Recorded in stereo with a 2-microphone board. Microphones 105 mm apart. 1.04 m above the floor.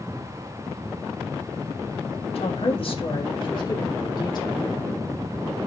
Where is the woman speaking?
65° left (ahead or behind), 1.8 m; by 4.7 s 40° left (ahead or behind), 4 m.